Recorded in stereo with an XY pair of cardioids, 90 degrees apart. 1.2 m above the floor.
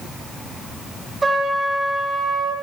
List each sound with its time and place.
1.2 s a trumpet: 30° right, 9 m